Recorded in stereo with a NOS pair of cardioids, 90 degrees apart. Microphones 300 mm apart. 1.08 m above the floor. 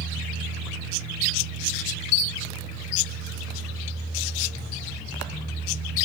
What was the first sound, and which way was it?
A fan, 35° right.